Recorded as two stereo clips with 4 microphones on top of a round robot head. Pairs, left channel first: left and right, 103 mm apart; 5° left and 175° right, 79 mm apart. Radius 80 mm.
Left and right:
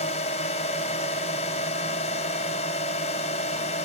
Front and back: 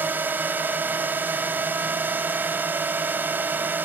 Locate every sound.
0.0 s a drone: 120° left